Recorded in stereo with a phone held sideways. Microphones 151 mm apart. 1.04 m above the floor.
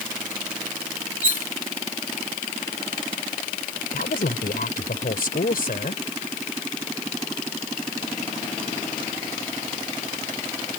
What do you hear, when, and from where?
1.2 s cutlery clinking: 80° left
3.9 s a woman speaking: 80° left